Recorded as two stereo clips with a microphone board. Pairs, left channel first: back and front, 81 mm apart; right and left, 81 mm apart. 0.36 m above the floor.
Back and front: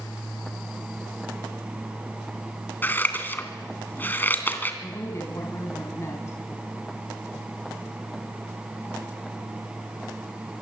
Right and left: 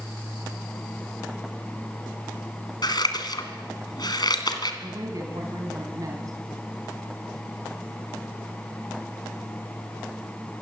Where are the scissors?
115° right, 2.5 m.